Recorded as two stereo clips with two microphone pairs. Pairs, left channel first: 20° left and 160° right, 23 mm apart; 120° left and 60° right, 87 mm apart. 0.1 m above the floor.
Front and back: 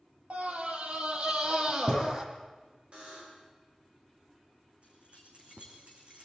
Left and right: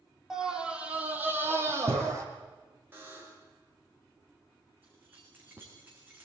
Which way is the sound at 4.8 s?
130° right.